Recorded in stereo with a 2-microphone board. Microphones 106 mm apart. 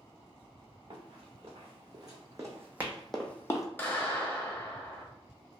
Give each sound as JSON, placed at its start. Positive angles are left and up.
{"t": 0.9, "sound": "running footsteps", "side_deg": -50, "distance_m": 1.6}
{"t": 3.8, "sound": "a clap", "side_deg": 15, "distance_m": 0.9}